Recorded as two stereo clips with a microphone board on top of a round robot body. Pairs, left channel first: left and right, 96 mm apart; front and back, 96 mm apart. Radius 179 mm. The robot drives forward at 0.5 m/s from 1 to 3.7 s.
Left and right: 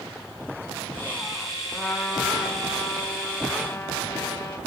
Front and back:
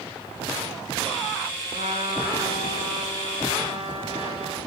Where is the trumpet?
Straight behind, 1.4 m.